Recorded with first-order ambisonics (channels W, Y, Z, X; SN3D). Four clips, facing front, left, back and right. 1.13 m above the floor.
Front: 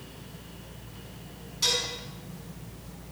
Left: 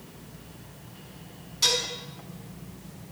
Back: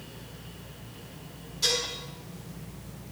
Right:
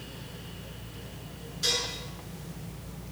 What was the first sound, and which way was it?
Dishes clattering, 70° left.